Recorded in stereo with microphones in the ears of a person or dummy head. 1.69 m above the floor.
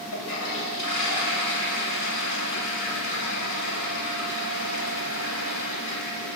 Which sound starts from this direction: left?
A toilet flushing, at 0.1 s.